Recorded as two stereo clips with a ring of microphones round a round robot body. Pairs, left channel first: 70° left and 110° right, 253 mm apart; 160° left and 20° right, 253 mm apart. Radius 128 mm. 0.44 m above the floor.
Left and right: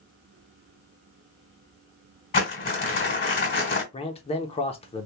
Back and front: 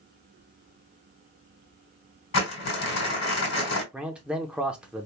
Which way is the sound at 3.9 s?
60° left.